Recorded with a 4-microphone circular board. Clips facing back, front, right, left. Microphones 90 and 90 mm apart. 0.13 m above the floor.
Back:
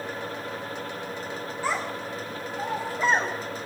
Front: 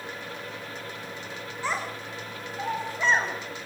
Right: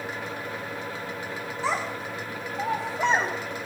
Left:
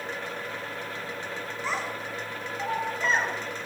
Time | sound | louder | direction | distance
1.6 | a child speaking | back 2 dB, right 4 dB | 100° right | 8 m